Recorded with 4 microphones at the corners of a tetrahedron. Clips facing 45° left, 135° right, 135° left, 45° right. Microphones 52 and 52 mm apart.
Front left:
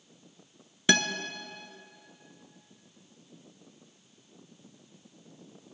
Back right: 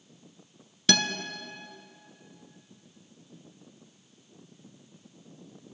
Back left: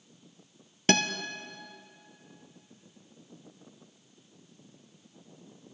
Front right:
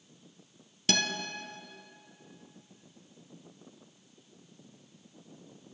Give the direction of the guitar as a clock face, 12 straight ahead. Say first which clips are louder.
Front left 1 dB, back left 5 dB; 8 o'clock.